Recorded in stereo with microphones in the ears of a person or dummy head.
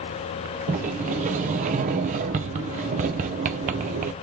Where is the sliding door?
35° right (ahead or behind), 0.5 m.